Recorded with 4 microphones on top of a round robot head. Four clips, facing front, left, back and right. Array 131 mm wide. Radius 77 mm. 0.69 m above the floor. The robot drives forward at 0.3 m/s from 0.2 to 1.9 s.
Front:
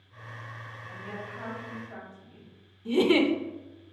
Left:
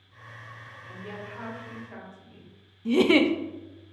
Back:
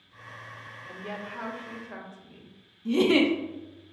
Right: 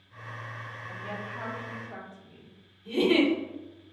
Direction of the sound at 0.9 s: Straight behind.